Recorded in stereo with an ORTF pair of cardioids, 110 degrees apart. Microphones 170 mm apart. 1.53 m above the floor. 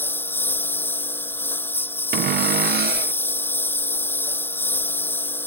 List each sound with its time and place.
0.0 s a lawn mower: 10° left
2.1 s a cupboard door: 65° right